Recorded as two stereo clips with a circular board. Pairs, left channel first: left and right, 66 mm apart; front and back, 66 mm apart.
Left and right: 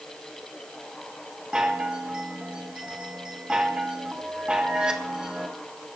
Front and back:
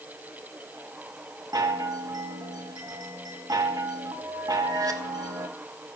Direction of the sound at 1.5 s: 165° right.